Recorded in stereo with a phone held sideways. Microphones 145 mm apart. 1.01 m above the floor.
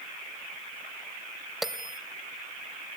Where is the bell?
Centre (ahead or behind), 1.1 m.